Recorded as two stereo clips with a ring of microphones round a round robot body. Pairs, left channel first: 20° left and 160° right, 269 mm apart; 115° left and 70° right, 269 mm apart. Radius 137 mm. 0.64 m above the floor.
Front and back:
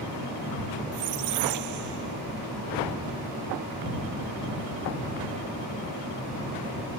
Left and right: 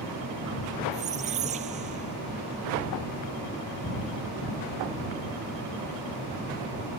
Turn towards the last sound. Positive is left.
turn(degrees=-135)